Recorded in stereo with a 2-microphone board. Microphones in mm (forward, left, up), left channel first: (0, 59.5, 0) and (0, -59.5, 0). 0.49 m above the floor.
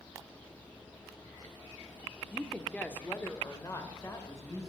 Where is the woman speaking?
Centre (ahead or behind), 0.9 m; by 4.7 s 30° left (ahead or behind), 2 m.